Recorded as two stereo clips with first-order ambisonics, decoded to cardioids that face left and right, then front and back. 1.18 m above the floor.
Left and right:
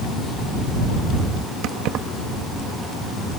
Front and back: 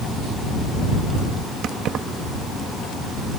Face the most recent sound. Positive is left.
turn(degrees=-130)